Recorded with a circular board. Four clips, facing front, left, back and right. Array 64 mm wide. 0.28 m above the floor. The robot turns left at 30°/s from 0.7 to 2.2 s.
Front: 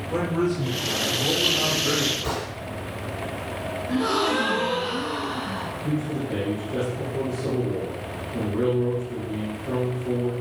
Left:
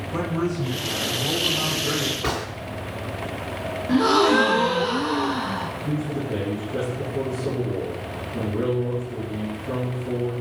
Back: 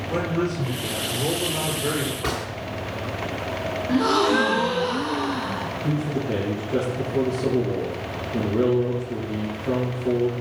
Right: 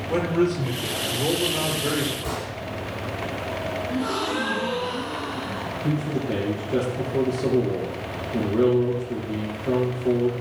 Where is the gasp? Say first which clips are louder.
Left 11 dB, back 4 dB; 115° left, 2 m.